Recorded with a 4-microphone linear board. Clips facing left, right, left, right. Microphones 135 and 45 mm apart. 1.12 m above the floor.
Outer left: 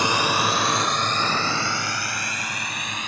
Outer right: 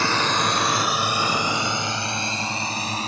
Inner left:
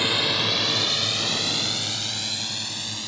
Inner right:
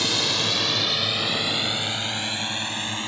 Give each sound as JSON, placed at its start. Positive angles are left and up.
{"t": 0.0, "sound": "a drone", "side_deg": 15}